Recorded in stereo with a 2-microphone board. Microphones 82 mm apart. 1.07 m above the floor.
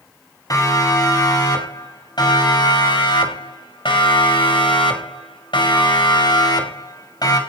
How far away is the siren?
About 6 m.